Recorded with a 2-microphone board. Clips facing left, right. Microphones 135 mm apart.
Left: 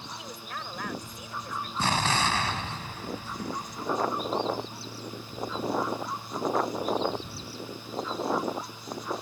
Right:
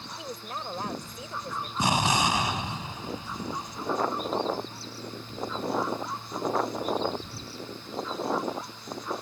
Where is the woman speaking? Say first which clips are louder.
Right 6 dB; 30° right (ahead or behind).